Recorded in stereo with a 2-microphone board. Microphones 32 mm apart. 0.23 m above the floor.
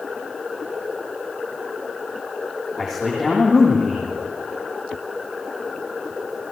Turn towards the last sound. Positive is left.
turn(degrees=-5)  # may be behind; listen again after turning